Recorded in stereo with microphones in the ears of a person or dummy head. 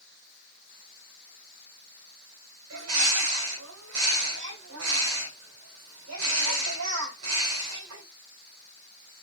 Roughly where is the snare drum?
I don't hear a snare drum.